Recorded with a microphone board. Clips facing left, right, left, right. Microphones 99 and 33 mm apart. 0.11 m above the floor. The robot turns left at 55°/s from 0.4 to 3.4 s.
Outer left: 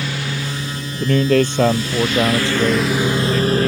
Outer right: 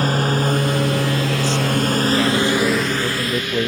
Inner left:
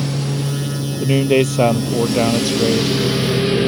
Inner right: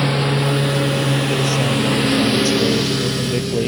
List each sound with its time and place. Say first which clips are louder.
0.0 s a lawn mower: outer right 7 dB, inner right 4 dB; 45° right (ahead or behind); by 3.7 s 35° left (ahead or behind)
1.0 s a man speaking: outer left 5 dB, inner left 4 dB; 105° left; by 3.7 s 30° right